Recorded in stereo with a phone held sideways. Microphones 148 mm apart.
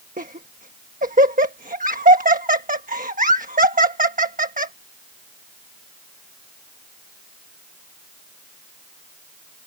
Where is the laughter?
65° right (ahead or behind).